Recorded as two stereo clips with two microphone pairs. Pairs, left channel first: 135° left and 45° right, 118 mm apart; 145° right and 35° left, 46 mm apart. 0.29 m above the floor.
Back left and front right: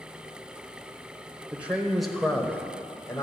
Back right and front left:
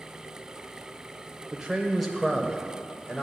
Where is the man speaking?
5° left, 1.0 m; by 3.2 s 170° left, 1.2 m.